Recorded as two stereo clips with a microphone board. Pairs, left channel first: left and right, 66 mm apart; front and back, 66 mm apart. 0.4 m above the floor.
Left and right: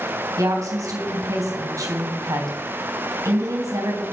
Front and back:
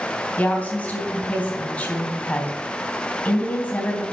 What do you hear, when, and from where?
0.4 s a woman speaking: 60° right, 3 m